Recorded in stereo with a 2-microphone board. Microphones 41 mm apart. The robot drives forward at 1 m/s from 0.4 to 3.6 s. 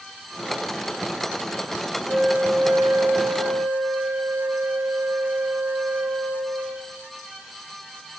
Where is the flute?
75° right (ahead or behind), 5.5 m; by 7.0 s 85° right, 5 m.